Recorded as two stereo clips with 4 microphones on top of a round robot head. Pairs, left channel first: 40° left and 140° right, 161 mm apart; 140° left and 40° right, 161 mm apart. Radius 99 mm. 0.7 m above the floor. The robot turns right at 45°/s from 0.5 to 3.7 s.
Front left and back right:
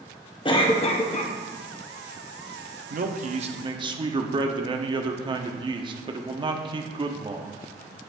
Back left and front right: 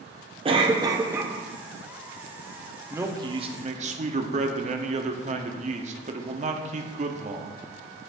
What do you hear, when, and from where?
0.5 s a cough: 5° right, 1.1 m; by 1.3 s 35° left, 1.1 m
2.9 s a man speaking: 115° right, 1.0 m; by 7.7 s 80° right, 1.0 m